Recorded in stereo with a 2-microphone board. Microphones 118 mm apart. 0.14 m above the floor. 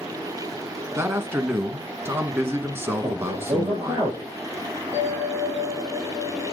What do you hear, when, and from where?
1.0 s a man speaking: 20° right (ahead or behind), 1.3 m
3.0 s a man speaking: 20° right (ahead or behind), 5 m
4.9 s a bell: 20° right (ahead or behind), 6 m